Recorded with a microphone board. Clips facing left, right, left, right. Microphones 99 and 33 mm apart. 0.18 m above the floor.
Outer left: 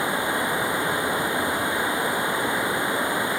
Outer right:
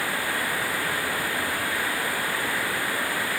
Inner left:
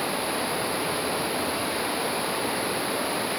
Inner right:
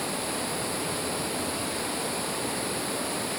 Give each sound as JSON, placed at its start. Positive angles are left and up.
{"t": 0.0, "sound": "running water", "side_deg": 20}